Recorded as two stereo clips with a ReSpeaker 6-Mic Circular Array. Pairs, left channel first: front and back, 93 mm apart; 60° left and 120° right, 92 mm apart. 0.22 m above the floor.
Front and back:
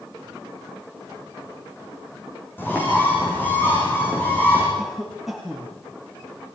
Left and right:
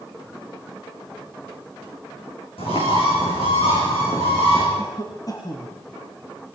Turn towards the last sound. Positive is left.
turn(degrees=95)